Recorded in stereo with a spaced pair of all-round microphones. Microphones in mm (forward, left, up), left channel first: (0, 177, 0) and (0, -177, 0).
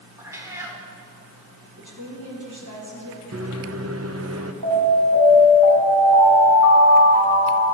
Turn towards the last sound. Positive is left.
turn(degrees=-60)  # may be behind; listen again after turning